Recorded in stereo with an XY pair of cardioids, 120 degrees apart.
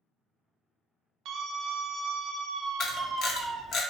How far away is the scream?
About 0.6 m.